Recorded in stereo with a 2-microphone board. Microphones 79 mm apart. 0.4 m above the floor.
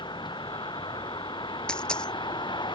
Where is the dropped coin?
10° left (ahead or behind).